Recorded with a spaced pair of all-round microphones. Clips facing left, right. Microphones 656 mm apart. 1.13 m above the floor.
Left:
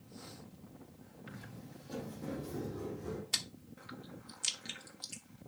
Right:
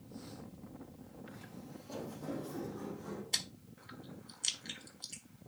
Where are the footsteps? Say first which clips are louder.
Left 2 dB; 40° left (ahead or behind), 3 m; by 3.2 s 55° left (ahead or behind), 3.5 m.